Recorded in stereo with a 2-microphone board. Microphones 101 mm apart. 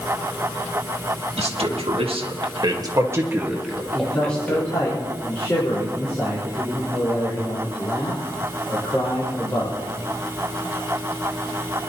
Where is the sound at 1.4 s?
80° right, 2.5 m; by 4.9 s 20° left (ahead or behind), 2.5 m.